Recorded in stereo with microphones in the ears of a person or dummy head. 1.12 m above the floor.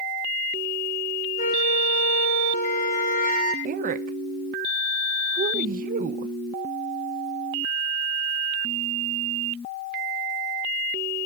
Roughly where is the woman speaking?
Right.